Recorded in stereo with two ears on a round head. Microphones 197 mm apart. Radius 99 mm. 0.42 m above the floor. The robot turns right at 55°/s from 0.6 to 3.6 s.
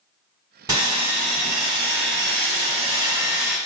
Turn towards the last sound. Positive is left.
turn(degrees=0)